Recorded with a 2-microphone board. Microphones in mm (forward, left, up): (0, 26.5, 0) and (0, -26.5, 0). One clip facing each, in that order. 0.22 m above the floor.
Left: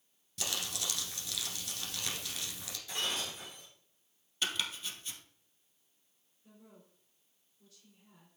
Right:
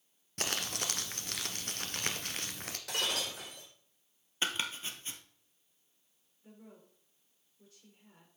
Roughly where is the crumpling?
Right.